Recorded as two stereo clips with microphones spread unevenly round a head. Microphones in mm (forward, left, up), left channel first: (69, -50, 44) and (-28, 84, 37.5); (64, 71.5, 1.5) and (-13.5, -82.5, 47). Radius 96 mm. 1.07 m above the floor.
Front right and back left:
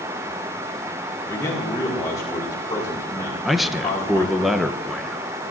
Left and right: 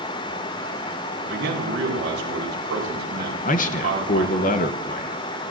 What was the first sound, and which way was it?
A man speaking, 125° right.